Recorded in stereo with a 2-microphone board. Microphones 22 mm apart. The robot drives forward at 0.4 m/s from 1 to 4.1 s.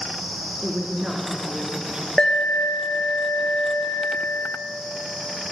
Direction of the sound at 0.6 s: 35° right (ahead or behind).